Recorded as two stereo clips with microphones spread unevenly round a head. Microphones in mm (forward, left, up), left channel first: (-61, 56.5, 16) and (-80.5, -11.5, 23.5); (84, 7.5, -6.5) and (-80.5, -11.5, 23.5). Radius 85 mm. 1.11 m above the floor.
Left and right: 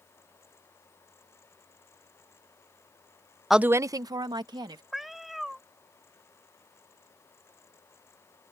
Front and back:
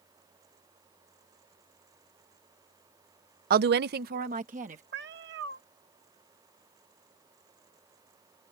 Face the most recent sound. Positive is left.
turn(degrees=170)